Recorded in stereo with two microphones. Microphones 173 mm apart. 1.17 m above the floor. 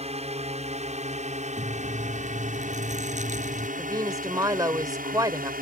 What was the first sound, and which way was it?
A drone, 40° right (ahead or behind).